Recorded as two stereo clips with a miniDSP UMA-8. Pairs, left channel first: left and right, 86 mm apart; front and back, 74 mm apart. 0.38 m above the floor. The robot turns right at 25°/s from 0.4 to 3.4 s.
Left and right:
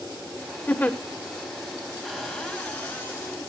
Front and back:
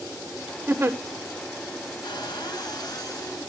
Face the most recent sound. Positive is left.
turn(degrees=30)